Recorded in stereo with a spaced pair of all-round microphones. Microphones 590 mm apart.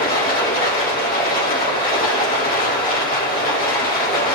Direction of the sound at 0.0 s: 15° left (ahead or behind).